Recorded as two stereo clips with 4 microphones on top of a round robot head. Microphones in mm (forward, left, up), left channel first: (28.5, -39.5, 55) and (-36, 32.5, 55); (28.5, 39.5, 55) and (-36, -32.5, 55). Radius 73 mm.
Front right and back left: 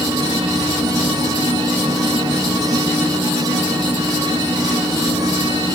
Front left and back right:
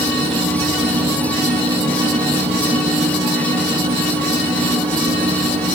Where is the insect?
155° right, 5.5 m.